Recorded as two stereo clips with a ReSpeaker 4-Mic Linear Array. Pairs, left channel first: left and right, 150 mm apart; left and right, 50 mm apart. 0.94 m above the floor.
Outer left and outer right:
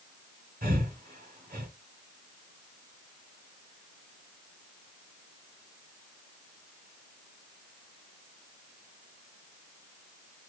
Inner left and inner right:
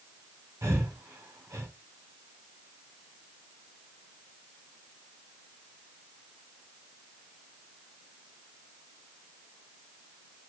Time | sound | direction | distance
0.6 | breathing | 80° right | 2 m